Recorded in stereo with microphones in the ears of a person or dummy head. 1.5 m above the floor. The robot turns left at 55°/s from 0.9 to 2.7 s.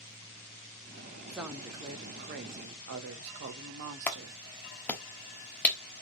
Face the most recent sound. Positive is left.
turn(degrees=10)  # may be behind; listen again after turning